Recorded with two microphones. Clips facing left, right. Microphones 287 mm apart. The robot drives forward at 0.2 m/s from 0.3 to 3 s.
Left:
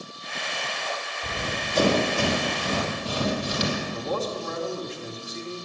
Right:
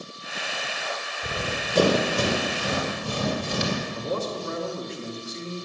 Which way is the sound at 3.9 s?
30° right (ahead or behind).